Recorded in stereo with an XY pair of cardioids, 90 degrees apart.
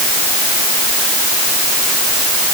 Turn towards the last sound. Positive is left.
No sound to turn to.